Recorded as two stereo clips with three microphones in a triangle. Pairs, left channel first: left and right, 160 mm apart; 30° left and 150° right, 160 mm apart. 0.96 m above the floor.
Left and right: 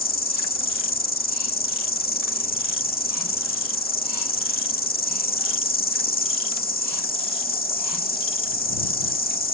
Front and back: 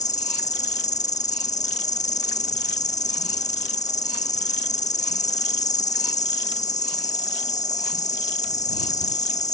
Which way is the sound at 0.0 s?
70° left.